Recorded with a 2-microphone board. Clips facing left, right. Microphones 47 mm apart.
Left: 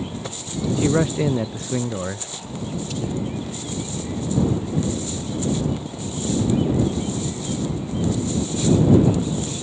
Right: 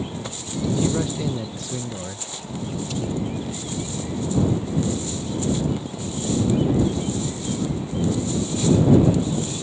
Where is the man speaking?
40° left (ahead or behind).